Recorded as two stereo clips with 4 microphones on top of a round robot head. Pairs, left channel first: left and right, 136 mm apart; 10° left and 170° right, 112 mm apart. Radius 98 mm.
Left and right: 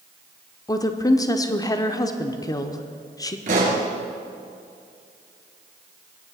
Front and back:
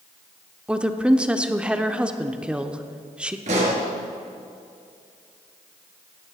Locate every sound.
0.7 s a woman speaking: 120° left, 0.9 m
3.5 s a pop: 135° right, 3 m